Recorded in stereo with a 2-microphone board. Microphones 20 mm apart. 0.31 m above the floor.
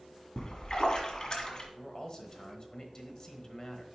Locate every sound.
0.4 s a splash: 40° left (ahead or behind), 1.6 m
1.8 s a man speaking: 35° left (ahead or behind), 1.2 m